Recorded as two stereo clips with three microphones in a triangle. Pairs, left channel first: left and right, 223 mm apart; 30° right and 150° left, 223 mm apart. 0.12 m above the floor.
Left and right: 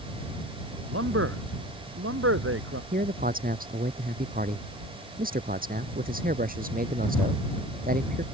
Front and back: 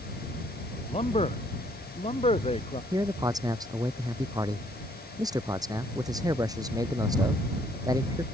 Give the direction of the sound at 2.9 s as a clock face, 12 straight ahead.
5 o'clock.